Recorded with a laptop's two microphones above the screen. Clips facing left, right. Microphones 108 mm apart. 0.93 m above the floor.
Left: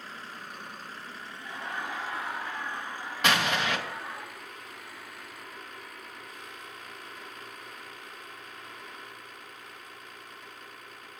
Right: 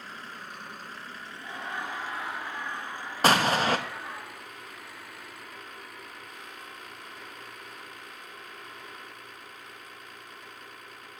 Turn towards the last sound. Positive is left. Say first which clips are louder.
# right 4 dB
turn(degrees=-35)  # may be behind; listen again after turning